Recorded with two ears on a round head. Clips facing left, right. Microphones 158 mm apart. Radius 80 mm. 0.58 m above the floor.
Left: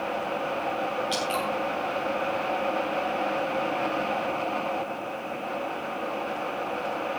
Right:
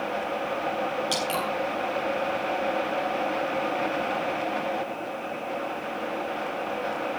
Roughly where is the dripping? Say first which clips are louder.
Even; right.